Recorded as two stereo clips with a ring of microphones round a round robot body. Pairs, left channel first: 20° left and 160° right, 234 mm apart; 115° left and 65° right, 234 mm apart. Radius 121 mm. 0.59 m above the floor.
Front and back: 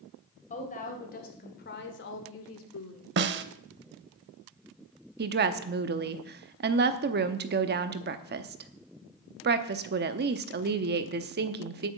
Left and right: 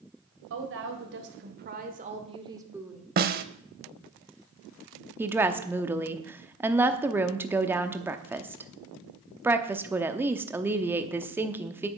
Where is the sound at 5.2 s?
145° right, 0.8 m.